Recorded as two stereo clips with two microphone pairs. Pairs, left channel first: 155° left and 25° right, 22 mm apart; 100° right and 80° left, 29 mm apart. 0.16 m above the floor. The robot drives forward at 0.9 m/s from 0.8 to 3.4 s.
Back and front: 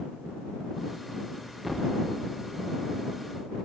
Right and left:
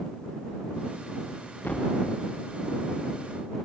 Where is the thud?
105° right, 5.5 m; by 1.9 s 110° right, 5.5 m.